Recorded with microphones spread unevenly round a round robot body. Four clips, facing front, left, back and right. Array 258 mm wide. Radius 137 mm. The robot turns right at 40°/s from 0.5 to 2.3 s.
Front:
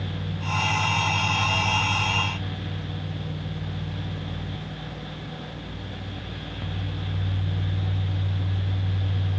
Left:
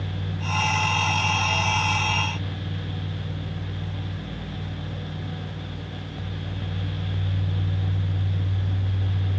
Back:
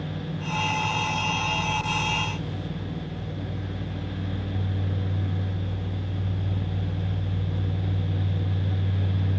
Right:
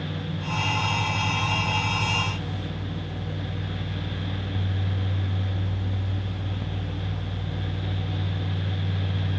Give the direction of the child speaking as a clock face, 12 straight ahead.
I don't hear a child speaking.